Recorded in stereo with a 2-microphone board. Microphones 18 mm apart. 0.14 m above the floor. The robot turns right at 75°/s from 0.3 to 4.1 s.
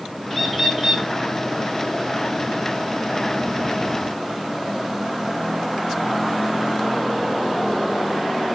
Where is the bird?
160° left, 1.5 m; by 1.1 s 145° right, 1.5 m.